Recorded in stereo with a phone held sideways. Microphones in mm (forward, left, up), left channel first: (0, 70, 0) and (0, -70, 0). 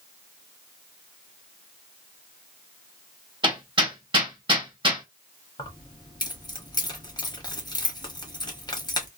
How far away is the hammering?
About 1.2 m.